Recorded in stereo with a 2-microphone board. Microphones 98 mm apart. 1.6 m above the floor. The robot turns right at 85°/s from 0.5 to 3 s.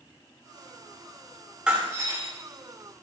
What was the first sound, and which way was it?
Breaking glass, 170° right.